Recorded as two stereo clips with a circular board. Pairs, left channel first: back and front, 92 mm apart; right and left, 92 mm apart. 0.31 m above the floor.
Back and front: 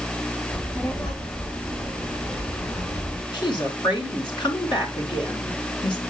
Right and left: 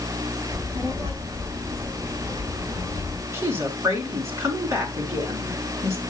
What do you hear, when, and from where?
0.5 s a child speaking: 140° left, 9.5 m; by 3.2 s 155° left, 7 m
3.3 s a woman speaking: 150° left, 3.5 m